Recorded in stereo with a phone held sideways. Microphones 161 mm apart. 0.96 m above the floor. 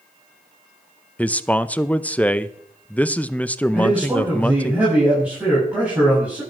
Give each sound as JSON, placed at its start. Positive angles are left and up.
{"t": 1.2, "sound": "a man speaking", "side_deg": 10, "distance_m": 0.6}
{"t": 3.7, "sound": "a man speaking", "side_deg": -10, "distance_m": 7.0}